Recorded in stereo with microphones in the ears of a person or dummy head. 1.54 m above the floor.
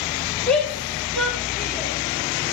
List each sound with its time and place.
0.5 s a shout: 5° left (ahead or behind), 2 m; by 1.9 s centre (ahead or behind), 3.5 m